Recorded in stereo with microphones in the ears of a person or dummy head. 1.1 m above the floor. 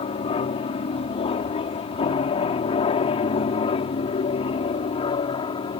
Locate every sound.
0.0 s an aircraft: 25° left (ahead or behind)